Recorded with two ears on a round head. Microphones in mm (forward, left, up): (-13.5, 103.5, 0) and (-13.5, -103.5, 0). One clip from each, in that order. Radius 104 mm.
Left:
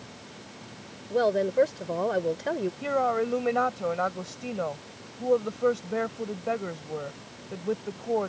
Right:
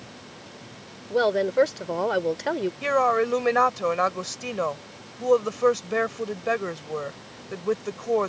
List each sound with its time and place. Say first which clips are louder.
1.1 s a woman speaking: right 2 dB; 35° right (ahead or behind)
2.8 s a woman speaking: right 5 dB; 55° right (ahead or behind)